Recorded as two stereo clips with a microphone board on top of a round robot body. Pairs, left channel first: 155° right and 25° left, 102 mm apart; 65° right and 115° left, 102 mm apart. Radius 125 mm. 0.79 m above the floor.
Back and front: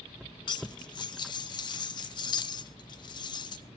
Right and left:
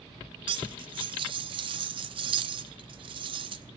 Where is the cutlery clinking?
155° left, 0.7 m.